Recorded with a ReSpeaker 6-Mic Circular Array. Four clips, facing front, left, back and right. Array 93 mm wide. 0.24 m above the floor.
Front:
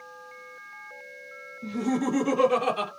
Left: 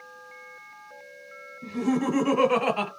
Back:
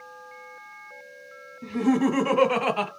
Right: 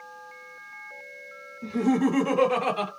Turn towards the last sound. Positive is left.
turn(degrees=140)